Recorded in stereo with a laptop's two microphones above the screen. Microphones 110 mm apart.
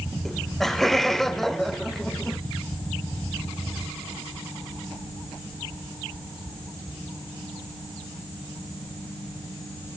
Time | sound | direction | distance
0.2 | laughter | 5° left (ahead or behind) | 0.8 m